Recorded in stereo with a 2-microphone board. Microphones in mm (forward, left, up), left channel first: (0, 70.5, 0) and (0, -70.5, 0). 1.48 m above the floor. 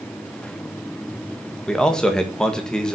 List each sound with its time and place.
1.7 s a man speaking: 5° left (ahead or behind), 1.7 m